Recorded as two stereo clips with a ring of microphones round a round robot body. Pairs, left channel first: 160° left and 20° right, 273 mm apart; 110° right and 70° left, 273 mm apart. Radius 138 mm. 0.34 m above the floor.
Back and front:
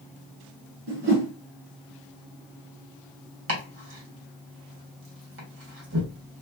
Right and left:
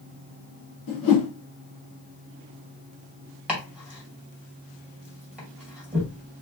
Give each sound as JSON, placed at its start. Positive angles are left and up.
{"t": 0.9, "sound": "a whoosh", "azimuth_deg": -70, "distance_m": 2.5}
{"t": 3.5, "sound": "chopping", "azimuth_deg": -15, "distance_m": 1.9}